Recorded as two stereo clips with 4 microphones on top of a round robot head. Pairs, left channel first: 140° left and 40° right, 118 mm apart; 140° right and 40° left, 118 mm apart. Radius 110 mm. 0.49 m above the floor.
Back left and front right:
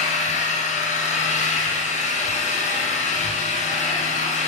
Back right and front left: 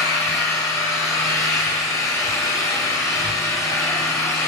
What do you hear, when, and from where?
0.0 s an engine running: 150° left, 4.5 m